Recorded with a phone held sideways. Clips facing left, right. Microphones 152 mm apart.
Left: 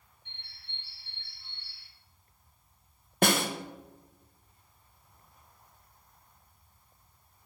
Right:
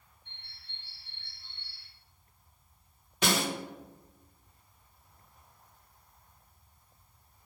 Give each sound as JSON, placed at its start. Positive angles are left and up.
{"t": 0.2, "sound": "a bird", "side_deg": 75, "distance_m": 1.6}
{"t": 3.2, "sound": "a snare drum", "side_deg": 55, "distance_m": 0.8}